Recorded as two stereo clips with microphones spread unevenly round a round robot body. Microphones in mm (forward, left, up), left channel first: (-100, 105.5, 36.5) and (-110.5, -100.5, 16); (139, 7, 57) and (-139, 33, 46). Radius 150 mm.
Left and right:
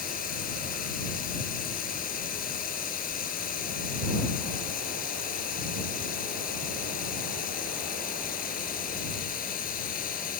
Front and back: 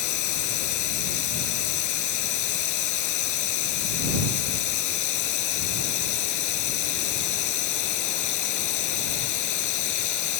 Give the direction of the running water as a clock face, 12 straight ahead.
11 o'clock.